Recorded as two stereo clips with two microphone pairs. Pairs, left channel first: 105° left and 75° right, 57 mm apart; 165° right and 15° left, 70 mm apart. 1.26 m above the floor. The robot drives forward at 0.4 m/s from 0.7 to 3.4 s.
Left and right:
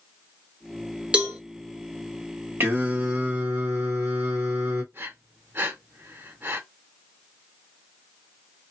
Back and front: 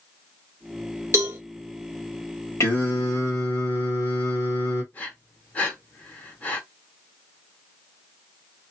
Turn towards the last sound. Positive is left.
turn(degrees=-105)